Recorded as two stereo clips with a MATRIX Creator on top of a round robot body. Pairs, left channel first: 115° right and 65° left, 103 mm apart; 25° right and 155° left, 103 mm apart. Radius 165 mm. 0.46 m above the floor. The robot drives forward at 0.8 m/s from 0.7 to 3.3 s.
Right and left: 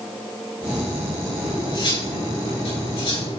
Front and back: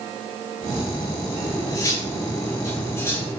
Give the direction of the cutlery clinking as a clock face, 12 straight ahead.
3 o'clock.